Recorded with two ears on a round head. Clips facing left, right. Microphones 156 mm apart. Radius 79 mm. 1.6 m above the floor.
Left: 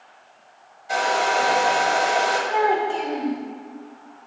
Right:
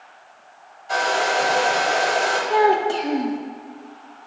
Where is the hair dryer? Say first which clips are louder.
Even; 10° left (ahead or behind), 1.5 m.